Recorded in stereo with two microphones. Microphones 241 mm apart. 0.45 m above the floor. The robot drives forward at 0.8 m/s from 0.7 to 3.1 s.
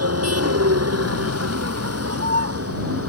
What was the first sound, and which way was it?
A vehicle, 90° right.